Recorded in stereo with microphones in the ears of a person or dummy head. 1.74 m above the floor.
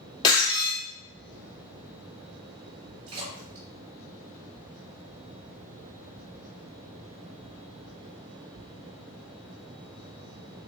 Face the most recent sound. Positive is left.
turn(degrees=-35)  # may be behind; listen again after turning